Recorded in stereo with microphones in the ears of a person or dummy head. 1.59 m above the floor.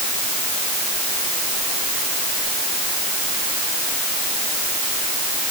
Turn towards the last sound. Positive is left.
No sound to turn to.